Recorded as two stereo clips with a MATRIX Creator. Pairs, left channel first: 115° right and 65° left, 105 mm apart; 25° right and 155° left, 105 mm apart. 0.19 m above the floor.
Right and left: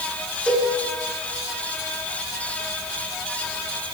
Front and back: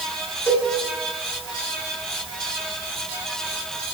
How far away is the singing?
I don't hear singing.